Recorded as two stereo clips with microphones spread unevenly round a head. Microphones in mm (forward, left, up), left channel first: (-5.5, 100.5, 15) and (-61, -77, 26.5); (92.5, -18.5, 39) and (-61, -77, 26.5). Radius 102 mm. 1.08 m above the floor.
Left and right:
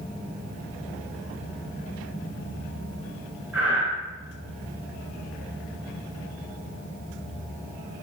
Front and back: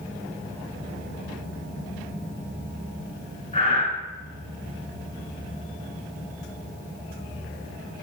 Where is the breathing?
30° right, 3 m.